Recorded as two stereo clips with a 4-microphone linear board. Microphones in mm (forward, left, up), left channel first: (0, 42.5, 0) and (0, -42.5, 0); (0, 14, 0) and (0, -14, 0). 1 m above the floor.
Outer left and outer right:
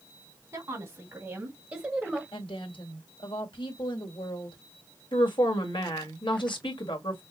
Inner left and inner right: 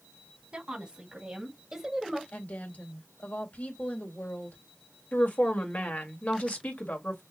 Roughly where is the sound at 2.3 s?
Left.